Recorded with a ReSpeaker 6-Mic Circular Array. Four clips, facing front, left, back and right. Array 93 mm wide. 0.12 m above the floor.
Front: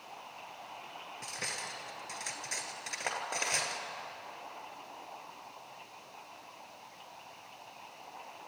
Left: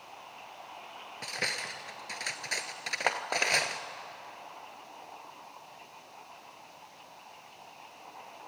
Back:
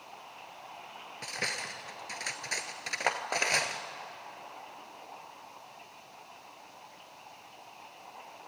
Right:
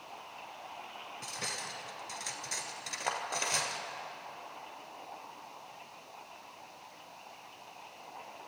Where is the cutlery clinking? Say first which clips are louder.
Left 6 dB, back 5 dB; 120° left, 1.2 m.